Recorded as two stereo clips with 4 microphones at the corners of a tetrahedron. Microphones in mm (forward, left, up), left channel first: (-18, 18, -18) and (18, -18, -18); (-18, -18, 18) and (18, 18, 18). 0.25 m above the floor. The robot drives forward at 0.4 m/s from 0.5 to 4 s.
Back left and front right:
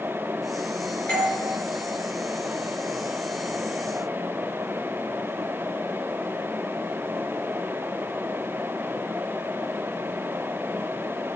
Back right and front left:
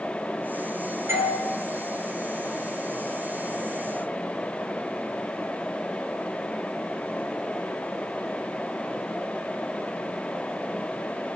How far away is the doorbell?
About 5 m.